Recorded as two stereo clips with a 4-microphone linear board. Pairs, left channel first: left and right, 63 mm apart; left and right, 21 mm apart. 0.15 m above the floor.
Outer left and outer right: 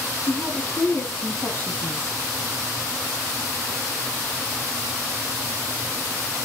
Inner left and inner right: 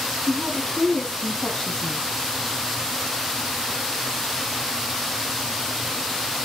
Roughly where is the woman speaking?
Left.